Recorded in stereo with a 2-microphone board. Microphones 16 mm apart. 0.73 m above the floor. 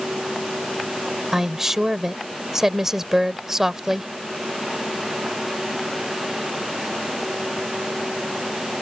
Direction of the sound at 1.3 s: 20° right (ahead or behind).